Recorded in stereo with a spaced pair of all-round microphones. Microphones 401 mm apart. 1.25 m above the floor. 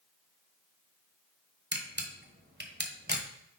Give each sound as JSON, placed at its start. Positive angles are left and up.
{"t": 1.7, "sound": "a camera shutter", "side_deg": -25, "distance_m": 1.1}